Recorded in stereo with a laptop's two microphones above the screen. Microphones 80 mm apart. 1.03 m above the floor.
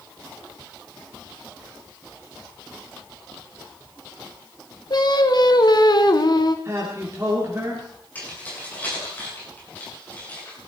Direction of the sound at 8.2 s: 20° left (ahead or behind).